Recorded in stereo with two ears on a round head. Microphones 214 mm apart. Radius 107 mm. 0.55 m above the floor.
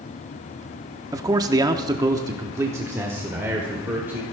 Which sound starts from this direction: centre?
A man speaking, at 1.1 s.